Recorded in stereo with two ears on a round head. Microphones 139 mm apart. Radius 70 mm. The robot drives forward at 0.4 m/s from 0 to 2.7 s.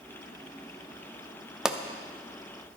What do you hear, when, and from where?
1.6 s a pop: 5° right (ahead or behind), 0.5 m